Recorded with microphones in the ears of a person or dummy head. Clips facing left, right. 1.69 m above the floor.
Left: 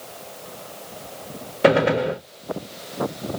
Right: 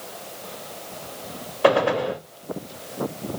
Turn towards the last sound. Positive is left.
turn(degrees=25)  # may be behind; listen again after turning